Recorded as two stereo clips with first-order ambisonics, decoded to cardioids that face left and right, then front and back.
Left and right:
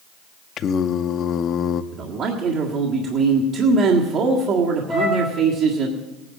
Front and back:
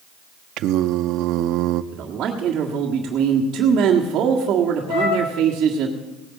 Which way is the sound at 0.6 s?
145° left.